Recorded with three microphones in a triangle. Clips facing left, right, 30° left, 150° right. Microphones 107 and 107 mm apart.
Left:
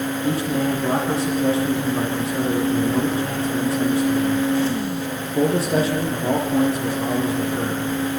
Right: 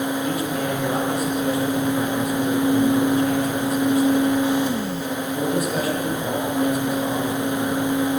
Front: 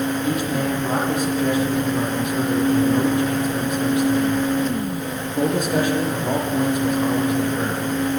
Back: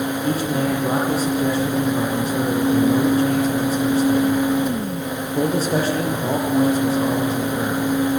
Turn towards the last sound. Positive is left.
turn(degrees=150)